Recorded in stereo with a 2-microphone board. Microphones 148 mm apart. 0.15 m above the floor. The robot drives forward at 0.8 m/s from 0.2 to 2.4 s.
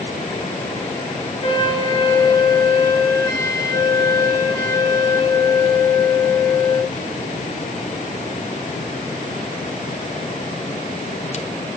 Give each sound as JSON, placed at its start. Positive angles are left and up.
{"t": 1.4, "sound": "a flute", "side_deg": 30, "distance_m": 0.6}